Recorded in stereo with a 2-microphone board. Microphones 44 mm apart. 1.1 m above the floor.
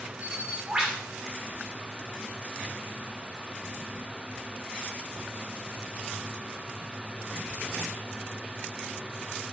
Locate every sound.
0.2 s a bird: 20° right (ahead or behind), 2.5 m